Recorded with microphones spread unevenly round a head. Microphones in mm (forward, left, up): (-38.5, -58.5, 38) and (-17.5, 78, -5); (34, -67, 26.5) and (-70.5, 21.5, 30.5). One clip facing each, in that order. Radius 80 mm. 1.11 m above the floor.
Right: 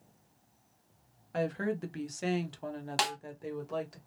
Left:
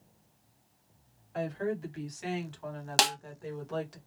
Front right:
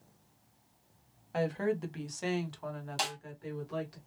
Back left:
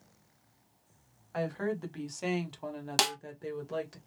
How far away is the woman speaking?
About 0.9 m.